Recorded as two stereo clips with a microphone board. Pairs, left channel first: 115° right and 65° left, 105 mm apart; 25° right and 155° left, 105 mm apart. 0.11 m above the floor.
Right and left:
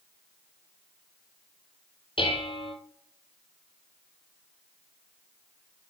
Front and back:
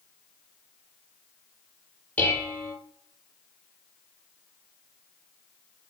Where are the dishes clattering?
95° right, 2 m.